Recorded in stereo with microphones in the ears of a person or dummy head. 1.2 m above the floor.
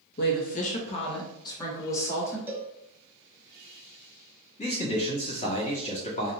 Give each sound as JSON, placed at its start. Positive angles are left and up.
{"t": 0.2, "sound": "a woman speaking", "side_deg": 50, "distance_m": 0.6}
{"t": 2.5, "sound": "a cowbell", "side_deg": -15, "distance_m": 0.5}
{"t": 4.6, "sound": "a man speaking", "side_deg": 35, "distance_m": 1.1}